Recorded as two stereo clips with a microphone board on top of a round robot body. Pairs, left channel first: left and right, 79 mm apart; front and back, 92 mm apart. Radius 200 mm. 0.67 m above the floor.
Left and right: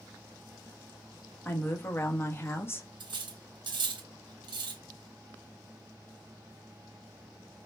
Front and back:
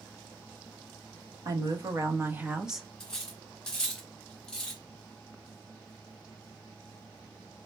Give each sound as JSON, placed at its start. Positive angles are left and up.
{"t": 1.4, "sound": "a woman speaking", "azimuth_deg": 145, "distance_m": 1.1}
{"t": 3.0, "sound": "cutlery clinking", "azimuth_deg": -85, "distance_m": 0.6}